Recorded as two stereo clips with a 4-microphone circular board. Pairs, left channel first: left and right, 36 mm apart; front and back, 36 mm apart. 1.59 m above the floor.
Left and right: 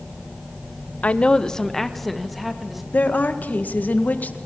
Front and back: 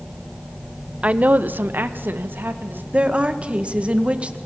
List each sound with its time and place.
1.0 s a woman speaking: 130° left, 0.8 m; by 2.8 s 175° right, 2.5 m
2.9 s a woman speaking: 125° left, 1.8 m